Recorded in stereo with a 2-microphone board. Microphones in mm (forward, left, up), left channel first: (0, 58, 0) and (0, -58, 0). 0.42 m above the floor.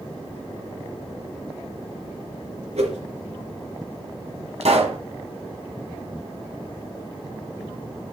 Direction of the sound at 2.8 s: 80° right.